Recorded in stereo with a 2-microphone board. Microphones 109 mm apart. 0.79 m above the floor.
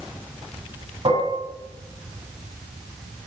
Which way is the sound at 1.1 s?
60° right (ahead or behind).